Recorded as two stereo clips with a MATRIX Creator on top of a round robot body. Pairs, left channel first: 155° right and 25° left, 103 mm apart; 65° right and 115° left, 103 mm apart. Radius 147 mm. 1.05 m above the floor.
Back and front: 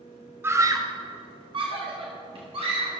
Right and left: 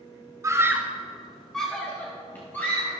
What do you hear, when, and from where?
0.4 s a scream: 75° left, 0.9 m; by 2.9 s straight ahead, 2 m